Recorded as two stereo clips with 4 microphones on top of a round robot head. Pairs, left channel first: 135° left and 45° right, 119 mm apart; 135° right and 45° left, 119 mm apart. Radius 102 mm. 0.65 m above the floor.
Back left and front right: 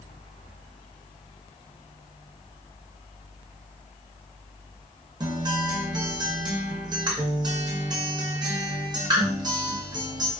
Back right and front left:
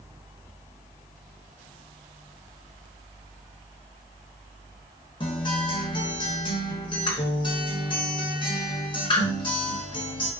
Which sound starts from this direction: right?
A guitar, at 5.2 s.